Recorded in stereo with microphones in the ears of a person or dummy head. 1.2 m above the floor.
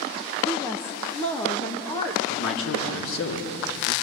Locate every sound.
0.4 s a woman speaking: 5° left (ahead or behind), 1.1 m; by 2.2 s 20° left (ahead or behind), 2 m
2.3 s a man speaking: 80° left, 3 m